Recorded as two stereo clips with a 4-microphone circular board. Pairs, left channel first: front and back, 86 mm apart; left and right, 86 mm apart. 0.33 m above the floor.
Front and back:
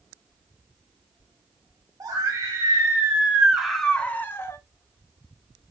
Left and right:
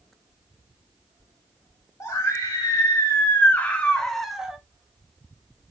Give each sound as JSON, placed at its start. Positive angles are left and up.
{"t": 2.0, "sound": "a scream", "azimuth_deg": 140, "distance_m": 2.0}